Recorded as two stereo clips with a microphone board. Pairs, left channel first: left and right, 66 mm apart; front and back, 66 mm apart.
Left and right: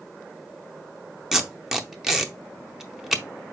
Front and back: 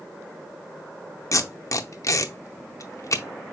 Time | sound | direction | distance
1.3 | tape being pulled | 5° right | 0.6 m